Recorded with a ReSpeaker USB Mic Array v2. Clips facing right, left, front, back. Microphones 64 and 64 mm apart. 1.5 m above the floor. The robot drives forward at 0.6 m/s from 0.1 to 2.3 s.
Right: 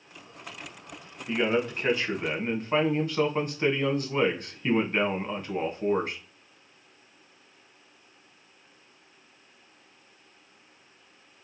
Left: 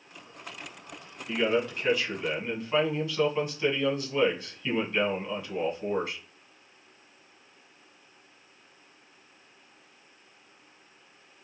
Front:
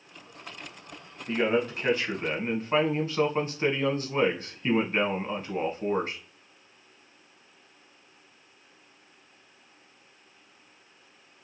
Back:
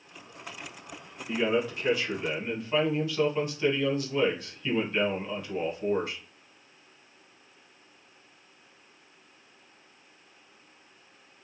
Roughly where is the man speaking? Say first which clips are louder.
Right 1 dB, front 1 dB; ahead right.